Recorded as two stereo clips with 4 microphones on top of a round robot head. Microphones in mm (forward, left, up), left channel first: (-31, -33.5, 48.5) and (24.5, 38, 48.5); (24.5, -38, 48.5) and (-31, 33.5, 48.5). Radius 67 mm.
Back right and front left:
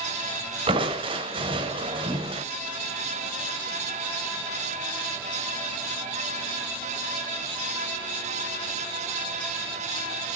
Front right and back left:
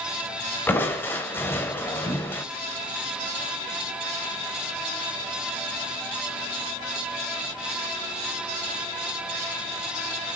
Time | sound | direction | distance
0.7 | crushing | 15° left | 2.5 m